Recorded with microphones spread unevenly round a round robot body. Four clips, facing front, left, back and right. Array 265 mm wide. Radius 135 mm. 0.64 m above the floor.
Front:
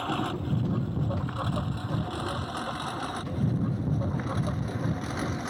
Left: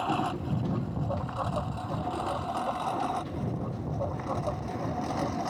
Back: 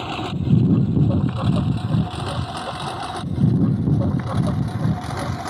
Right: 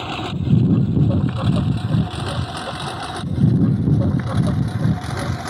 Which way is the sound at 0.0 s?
140° right.